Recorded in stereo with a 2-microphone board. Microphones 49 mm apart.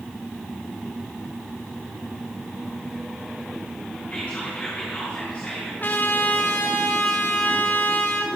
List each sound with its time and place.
4.1 s whispering: 25° left (ahead or behind), 6 m
5.8 s a trumpet: 45° left (ahead or behind), 1.9 m